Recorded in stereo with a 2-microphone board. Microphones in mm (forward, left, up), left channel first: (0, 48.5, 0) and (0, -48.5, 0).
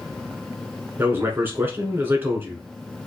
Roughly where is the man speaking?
Right.